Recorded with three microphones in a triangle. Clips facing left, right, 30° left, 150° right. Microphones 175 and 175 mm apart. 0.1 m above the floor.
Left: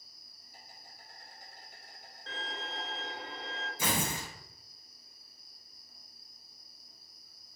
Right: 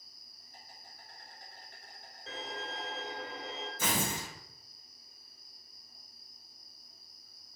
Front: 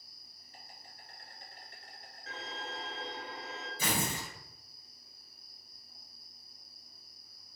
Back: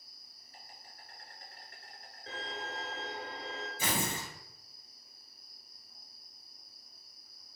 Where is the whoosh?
I don't hear a whoosh.